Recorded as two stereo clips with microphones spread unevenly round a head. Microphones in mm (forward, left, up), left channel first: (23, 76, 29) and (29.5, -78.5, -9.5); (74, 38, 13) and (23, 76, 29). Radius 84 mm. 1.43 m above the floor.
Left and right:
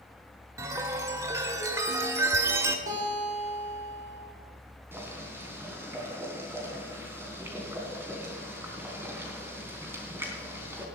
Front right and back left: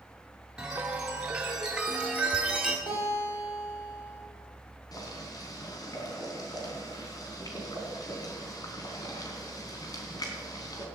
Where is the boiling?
10° right, 3.5 m.